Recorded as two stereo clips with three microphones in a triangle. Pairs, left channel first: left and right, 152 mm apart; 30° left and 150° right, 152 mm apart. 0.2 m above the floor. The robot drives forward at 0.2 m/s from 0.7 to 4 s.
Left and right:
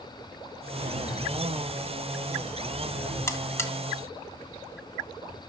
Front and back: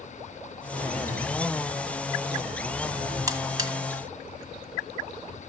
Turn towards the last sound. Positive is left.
turn(degrees=155)